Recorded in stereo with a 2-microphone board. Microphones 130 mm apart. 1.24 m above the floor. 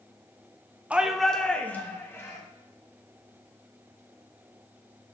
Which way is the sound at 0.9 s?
10° right (ahead or behind).